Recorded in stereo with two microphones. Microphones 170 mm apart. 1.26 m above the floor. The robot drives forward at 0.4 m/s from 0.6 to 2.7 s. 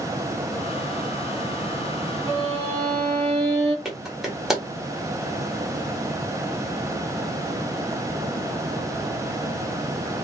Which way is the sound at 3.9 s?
Centre (ahead or behind).